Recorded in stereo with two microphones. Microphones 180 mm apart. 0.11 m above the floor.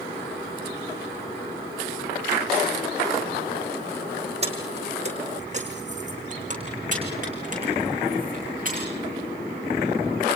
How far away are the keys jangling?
About 4.5 m.